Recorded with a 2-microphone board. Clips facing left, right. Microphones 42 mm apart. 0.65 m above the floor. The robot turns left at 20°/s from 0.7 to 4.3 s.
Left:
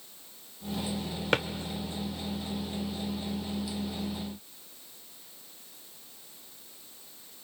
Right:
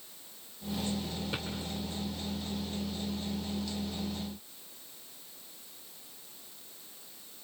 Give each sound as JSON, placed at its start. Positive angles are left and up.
{"t": 1.3, "sound": "a drawer", "side_deg": 70, "distance_m": 1.2}